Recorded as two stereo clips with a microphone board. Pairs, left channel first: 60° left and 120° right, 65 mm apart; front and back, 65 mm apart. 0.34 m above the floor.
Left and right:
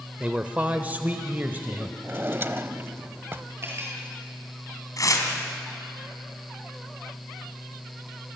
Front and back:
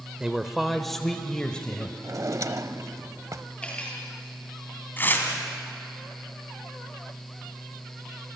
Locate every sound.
0.2 s a man speaking: 135° right, 0.9 m; by 1.9 s 70° right, 1.5 m
2.0 s a drawer: 170° right, 0.8 m
3.6 s cutlery clinking: 75° right, 5 m
5.0 s tearing paper: 55° left, 3 m